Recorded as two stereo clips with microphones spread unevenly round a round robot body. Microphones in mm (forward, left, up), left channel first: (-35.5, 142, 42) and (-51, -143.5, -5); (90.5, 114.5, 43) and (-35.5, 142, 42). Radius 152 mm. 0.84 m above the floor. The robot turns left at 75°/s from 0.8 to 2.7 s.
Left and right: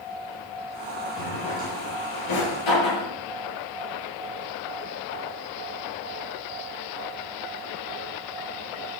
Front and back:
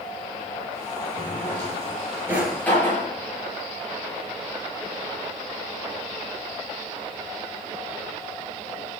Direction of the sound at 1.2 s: 175° left.